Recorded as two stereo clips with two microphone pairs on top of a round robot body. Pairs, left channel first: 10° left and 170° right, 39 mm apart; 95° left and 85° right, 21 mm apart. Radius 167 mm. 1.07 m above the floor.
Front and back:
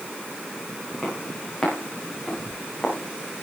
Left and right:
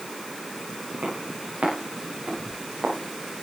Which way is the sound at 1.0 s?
70° right.